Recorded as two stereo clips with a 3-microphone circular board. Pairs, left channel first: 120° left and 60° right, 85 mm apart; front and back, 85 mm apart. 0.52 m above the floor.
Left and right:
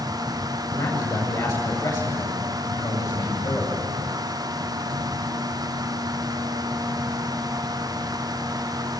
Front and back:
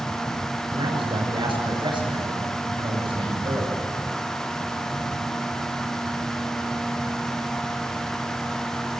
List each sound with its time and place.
0.7 s a man speaking: 160° left, 8.5 m